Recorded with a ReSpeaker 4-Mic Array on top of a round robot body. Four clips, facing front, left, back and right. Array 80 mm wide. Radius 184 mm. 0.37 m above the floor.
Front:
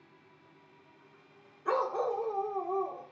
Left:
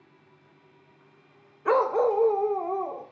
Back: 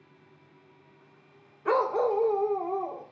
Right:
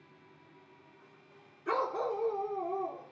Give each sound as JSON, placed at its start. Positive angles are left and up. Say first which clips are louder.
{"t": 1.6, "sound": "a dog barking", "louder": "left 10 dB, back 5 dB", "azimuth_deg": 115, "distance_m": 0.8}